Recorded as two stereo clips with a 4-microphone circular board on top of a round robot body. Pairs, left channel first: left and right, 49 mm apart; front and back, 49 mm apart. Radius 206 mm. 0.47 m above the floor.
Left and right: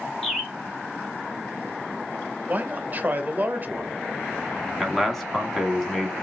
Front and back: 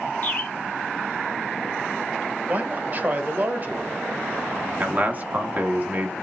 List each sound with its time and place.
0.2 s a bird: 5° left, 1.5 m
2.5 s a man speaking: 135° right, 1.0 m
4.8 s a man speaking: 175° left, 1.3 m